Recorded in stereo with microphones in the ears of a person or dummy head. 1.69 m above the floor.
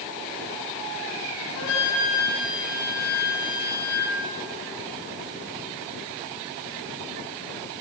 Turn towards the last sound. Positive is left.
turn(degrees=75)  # may be behind; listen again after turning